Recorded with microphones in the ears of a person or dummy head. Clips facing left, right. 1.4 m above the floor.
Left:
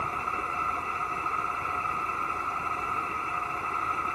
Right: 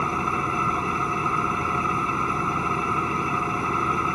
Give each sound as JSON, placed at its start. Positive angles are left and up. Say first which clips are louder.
{"t": 0.0, "sound": "an engine running", "louder": "right 9 dB", "side_deg": -60}